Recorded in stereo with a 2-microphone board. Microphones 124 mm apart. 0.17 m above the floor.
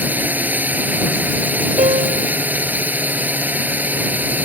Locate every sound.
0.0 s a drone: 15° right (ahead or behind)
1.8 s a piano: 70° right (ahead or behind)